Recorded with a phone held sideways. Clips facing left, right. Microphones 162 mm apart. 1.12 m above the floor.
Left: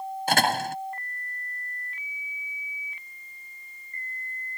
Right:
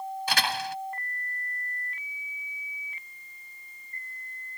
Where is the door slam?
50° left (ahead or behind).